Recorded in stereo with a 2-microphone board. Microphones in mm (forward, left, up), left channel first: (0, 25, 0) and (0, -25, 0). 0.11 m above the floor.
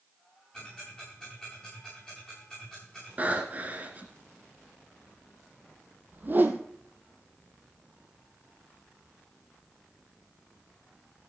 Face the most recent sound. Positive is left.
turn(degrees=-40)  # may be behind; listen again after turning